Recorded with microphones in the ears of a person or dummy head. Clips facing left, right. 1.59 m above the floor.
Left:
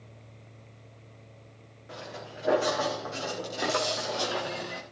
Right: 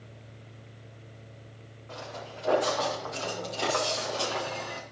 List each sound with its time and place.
1.9 s footsteps: 20° left (ahead or behind), 5.5 m